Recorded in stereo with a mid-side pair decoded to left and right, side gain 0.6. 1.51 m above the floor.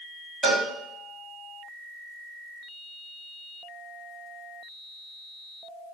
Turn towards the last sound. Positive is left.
turn(degrees=-5)